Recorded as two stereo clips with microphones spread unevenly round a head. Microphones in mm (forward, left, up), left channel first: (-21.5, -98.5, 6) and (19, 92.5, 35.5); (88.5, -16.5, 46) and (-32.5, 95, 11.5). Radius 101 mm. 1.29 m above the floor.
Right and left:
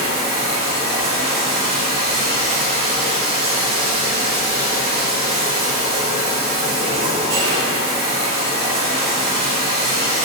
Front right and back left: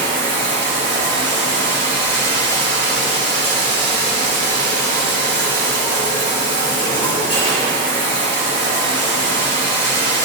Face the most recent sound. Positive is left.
turn(degrees=20)